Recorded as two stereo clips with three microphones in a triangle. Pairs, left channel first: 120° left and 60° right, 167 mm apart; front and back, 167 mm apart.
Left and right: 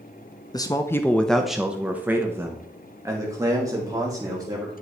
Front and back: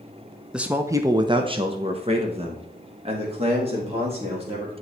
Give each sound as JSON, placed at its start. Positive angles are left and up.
{"t": 0.5, "sound": "a man speaking", "azimuth_deg": 100, "distance_m": 0.6}